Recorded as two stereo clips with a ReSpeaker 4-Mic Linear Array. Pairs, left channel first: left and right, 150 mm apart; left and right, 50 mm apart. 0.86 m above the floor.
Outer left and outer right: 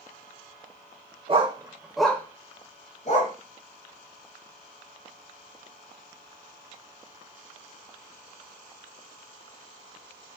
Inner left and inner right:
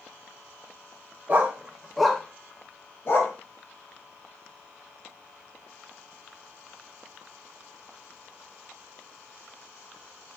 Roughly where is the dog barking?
Right.